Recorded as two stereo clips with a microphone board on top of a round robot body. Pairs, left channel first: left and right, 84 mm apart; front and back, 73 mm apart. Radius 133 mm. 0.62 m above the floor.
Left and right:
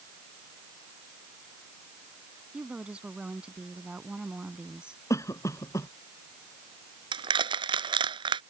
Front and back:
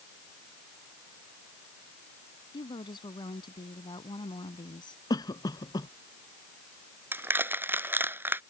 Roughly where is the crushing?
Behind right.